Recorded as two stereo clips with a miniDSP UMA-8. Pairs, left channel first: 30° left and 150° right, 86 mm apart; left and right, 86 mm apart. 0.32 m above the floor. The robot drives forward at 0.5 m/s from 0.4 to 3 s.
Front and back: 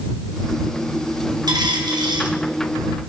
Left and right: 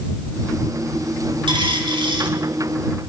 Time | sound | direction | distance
1.5 | a dropped coin | 110° right | 5.5 m